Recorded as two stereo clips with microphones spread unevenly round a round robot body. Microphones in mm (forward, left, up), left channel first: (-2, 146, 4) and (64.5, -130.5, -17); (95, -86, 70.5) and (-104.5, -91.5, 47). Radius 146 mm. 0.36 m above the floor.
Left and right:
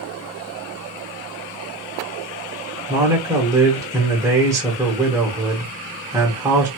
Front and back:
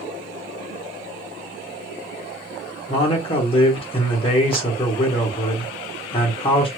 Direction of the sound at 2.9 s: 30° right.